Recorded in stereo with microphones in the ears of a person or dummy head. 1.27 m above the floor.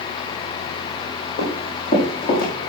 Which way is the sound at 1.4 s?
50° left (ahead or behind).